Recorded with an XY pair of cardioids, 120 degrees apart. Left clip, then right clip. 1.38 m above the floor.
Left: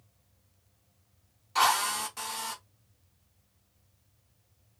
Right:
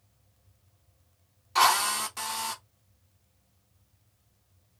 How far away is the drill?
About 1.1 m.